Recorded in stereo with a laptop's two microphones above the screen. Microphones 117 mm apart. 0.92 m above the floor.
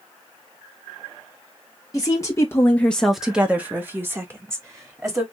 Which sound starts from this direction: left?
A woman speaking, at 1.9 s.